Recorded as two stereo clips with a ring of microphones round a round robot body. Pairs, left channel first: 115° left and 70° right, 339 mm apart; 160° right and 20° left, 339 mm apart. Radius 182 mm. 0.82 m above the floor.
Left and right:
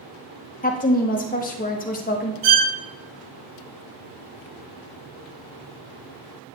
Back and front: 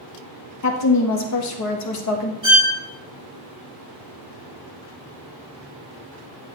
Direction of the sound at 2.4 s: 55° right.